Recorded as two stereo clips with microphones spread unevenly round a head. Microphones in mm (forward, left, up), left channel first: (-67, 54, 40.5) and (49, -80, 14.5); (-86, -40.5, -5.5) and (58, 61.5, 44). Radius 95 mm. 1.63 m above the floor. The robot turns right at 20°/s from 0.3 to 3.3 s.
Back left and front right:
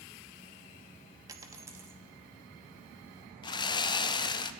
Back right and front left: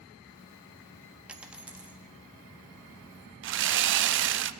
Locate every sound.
1.3 s a dropped coin: 20° left, 1.0 m; by 2.0 s 35° left, 1.0 m
3.4 s sawing: 60° left, 0.6 m